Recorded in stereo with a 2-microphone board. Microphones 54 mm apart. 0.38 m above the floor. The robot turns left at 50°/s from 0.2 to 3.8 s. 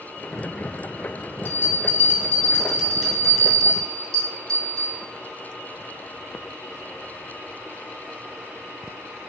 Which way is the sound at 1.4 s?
80° right.